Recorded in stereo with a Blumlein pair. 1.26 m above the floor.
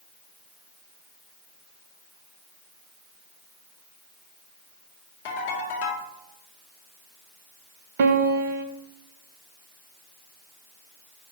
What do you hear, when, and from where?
5.2 s a ringtone: 50° left, 3 m
8.0 s a piano: 55° right, 0.9 m